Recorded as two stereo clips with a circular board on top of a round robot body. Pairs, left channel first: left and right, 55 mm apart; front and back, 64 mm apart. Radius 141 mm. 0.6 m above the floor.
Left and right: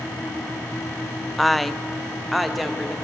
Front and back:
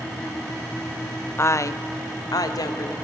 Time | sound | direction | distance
1.4 | a woman speaking | 5° left | 0.8 m